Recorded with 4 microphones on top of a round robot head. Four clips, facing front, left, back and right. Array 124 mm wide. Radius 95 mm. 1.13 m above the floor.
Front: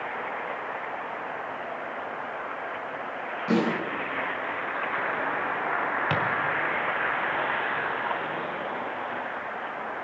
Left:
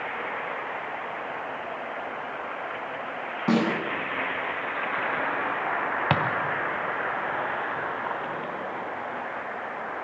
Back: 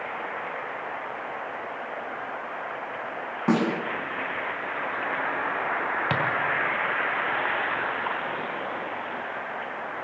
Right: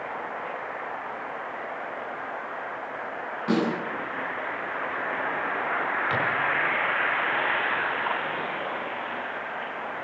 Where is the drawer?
110° left, 3 m.